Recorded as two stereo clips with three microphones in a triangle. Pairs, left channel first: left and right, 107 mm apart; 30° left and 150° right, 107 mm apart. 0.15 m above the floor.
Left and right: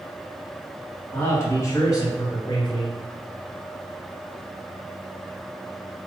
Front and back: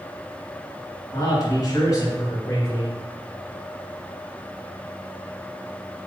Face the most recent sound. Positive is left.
turn(degrees=80)